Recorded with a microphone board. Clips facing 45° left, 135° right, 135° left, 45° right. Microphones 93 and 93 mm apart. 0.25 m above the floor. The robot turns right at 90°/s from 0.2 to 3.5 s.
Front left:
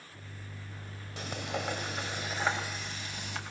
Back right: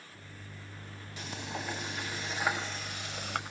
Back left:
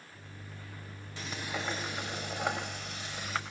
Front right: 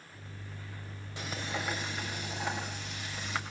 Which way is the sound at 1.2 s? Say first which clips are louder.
Front left 4 dB, front right 1 dB; 30° left.